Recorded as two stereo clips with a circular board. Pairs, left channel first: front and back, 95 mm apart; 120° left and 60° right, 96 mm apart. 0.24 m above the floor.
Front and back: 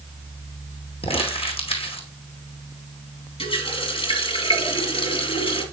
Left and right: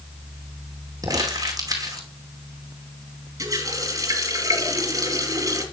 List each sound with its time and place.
1.0 s crumpling: 10° right, 2.5 m
3.4 s a running tap: 5° right, 3 m